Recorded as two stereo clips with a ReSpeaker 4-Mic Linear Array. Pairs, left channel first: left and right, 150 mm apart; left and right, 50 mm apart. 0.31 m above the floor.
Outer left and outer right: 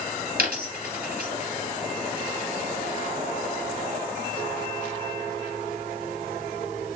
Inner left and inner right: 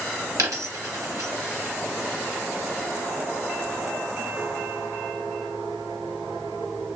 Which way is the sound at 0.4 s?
75° right (ahead or behind).